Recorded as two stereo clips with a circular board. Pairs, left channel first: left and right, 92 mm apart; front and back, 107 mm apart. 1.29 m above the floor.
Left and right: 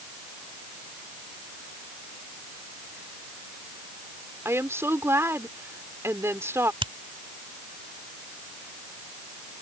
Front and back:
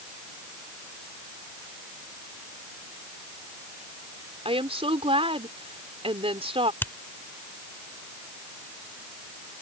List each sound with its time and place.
4.5 s a woman speaking: 150° right
6.8 s a finger snap: 70° right